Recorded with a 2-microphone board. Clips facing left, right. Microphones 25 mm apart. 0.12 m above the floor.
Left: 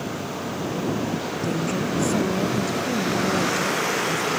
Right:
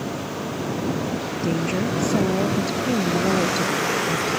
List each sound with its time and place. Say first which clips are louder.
1.4 s a woman speaking: right 3 dB; 25° right (ahead or behind); by 4.4 s 55° right (ahead or behind)